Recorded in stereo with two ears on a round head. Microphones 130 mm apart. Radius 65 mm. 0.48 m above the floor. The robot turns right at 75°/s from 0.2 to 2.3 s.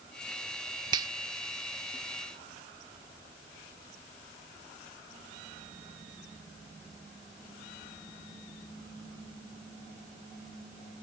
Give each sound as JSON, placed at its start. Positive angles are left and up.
{"t": 0.9, "sound": "a finger snap", "side_deg": -30}